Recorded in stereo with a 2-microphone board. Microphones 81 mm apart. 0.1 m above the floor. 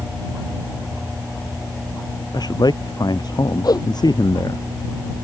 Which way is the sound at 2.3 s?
55° left (ahead or behind).